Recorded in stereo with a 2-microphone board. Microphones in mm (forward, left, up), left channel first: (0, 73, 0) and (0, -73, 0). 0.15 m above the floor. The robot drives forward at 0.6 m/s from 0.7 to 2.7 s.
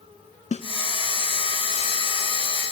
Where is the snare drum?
55° left (ahead or behind), 0.6 m.